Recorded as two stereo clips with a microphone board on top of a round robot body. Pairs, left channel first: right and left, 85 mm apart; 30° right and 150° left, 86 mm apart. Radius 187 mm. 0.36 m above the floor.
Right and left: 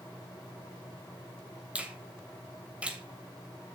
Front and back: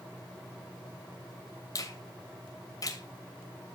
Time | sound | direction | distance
1.8 | a finger snap | 15° left | 2.5 m